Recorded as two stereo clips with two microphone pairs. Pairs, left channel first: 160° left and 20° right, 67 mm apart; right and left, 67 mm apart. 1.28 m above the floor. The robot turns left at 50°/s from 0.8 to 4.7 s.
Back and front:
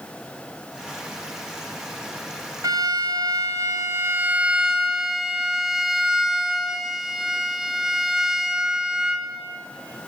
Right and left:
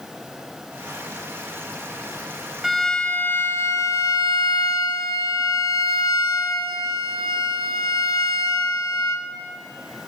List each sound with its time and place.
2.6 s a violin: straight ahead, 1.9 m; by 9.2 s 105° right, 1.9 m